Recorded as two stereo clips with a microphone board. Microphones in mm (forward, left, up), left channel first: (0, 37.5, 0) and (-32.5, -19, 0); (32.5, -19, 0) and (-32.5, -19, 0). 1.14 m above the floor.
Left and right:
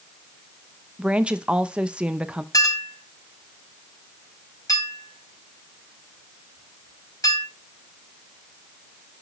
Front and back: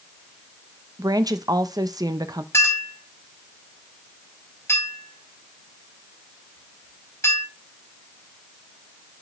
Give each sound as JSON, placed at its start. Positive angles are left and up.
{"t": 1.0, "sound": "a woman speaking", "azimuth_deg": 165, "distance_m": 0.7}
{"t": 2.5, "sound": "a clink", "azimuth_deg": 45, "distance_m": 5.0}